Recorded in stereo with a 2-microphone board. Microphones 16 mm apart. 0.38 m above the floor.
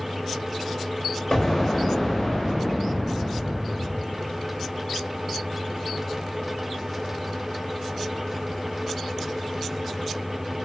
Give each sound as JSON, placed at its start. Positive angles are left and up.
{"t": 1.3, "sound": "an explosion", "side_deg": 50, "distance_m": 1.3}